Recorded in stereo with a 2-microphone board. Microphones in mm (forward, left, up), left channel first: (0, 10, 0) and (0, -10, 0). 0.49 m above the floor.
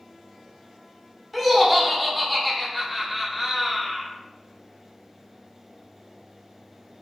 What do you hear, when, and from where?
1.3 s laughter: centre (ahead or behind), 0.7 m